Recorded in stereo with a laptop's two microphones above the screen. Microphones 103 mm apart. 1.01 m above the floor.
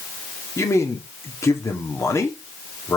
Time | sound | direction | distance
0.6 | a man speaking | 25° left (ahead or behind) | 2.5 m